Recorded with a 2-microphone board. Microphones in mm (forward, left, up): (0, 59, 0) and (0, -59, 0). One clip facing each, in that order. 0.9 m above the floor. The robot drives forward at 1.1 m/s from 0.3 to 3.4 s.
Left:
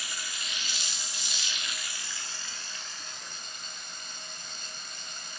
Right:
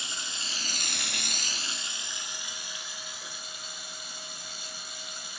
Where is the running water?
25° right (ahead or behind), 1.0 m; by 5.4 s 10° right (ahead or behind), 2.5 m.